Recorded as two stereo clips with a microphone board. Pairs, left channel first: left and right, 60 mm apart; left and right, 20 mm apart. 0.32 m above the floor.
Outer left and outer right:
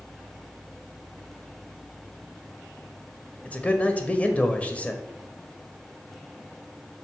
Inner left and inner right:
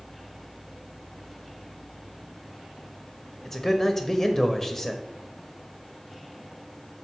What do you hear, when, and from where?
3.5 s a man speaking: 25° left (ahead or behind), 1.2 m